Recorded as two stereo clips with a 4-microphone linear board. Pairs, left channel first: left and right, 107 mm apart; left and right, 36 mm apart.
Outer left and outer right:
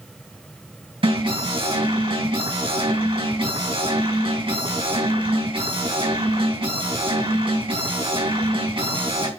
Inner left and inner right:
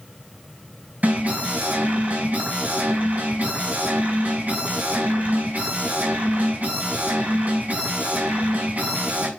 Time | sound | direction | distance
1.0 | an alarm | 55° right (ahead or behind) | 4 m